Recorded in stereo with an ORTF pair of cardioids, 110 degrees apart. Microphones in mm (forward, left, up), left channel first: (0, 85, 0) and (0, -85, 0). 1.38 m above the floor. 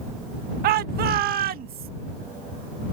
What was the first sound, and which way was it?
A shout, 70° right.